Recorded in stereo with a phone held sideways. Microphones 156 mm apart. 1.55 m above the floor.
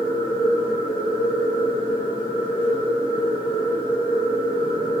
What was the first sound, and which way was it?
A machine running, 65° left (ahead or behind).